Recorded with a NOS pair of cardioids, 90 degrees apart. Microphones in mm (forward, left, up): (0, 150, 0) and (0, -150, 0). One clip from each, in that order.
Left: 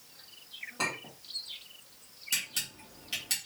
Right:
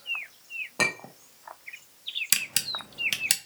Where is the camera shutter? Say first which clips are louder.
Right 4 dB; 60° right, 0.6 m.